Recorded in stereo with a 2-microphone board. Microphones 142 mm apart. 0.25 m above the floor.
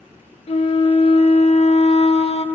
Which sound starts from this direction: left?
A flute, at 0.5 s.